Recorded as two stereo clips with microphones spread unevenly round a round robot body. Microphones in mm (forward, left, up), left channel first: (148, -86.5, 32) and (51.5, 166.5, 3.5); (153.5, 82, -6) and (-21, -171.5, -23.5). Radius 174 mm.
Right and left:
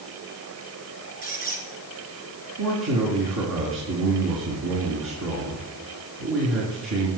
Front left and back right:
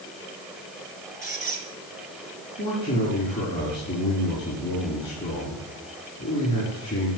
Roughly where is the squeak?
Behind.